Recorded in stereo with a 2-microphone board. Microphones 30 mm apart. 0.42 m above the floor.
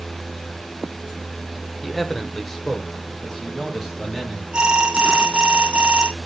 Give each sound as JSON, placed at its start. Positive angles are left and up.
{"t": 1.8, "sound": "a man speaking", "side_deg": 5, "distance_m": 1.0}
{"t": 4.5, "sound": "an alarm", "side_deg": -30, "distance_m": 1.4}